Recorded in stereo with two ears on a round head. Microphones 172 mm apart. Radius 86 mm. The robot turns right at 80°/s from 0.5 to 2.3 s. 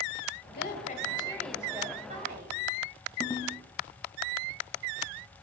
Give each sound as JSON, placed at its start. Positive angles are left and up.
{"t": 0.5, "sound": "a woman speaking", "azimuth_deg": 95, "distance_m": 2.5}
{"t": 3.2, "sound": "a ringtone", "side_deg": 15, "distance_m": 1.8}